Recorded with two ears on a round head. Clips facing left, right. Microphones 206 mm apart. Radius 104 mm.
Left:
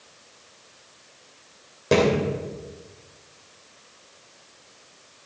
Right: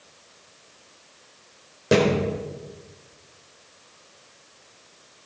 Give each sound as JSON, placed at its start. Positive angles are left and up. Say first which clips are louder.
{"t": 1.9, "sound": "a thud", "louder": "even", "side_deg": -10, "distance_m": 3.0}